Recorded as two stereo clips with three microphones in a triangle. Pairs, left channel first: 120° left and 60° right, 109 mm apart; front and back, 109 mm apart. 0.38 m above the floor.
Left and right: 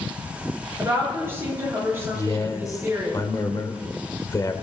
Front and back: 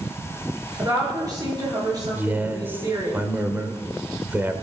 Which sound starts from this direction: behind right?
A woman speaking, at 0.8 s.